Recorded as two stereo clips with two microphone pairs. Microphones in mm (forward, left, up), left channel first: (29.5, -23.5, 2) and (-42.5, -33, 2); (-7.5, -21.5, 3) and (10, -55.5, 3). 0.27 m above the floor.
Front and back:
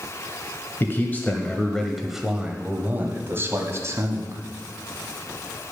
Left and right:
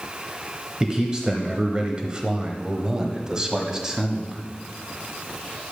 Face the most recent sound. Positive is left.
turn(degrees=-135)